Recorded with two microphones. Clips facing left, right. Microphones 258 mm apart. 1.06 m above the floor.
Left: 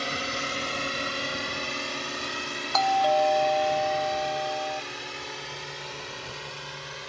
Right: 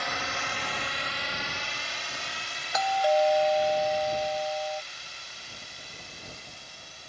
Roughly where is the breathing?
I don't hear breathing.